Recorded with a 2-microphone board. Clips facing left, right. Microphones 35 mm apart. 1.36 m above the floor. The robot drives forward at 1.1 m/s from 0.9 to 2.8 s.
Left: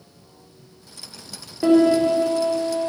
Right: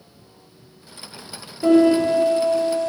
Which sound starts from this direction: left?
A piano, at 1.6 s.